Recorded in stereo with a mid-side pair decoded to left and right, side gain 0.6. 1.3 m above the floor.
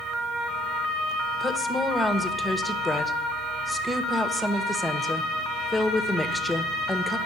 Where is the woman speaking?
5° left, 1.5 m.